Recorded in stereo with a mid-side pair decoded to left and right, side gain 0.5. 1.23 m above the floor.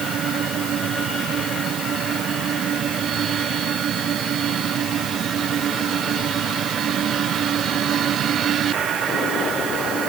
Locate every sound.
Only background noise.